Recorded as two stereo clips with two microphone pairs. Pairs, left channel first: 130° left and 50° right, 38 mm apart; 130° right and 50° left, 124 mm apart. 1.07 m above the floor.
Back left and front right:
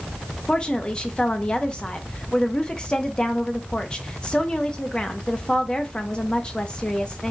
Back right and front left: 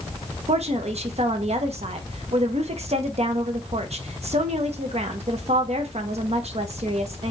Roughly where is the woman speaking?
Left.